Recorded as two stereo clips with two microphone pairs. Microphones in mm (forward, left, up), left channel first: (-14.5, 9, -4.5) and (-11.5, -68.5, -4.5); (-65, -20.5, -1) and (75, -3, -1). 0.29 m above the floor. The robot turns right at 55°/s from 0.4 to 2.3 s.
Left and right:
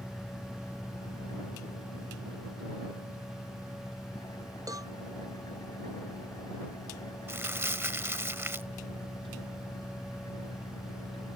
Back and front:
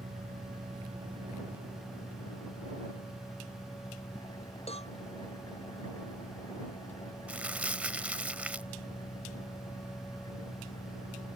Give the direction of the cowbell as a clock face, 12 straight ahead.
4 o'clock.